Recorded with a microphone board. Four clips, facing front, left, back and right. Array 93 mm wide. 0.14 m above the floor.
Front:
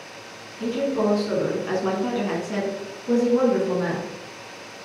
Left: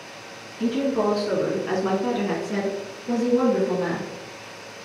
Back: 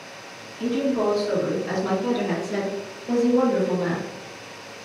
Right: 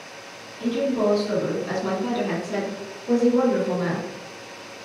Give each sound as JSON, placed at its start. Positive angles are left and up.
{"t": 0.6, "sound": "a woman speaking", "azimuth_deg": 80, "distance_m": 1.6}